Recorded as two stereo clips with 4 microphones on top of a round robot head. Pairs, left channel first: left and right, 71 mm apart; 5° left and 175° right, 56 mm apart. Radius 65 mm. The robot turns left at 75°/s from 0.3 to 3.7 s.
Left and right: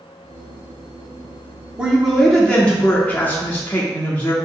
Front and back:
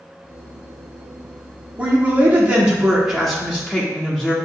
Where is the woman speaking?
155° right, 0.8 m; by 4.3 s 60° left, 0.8 m.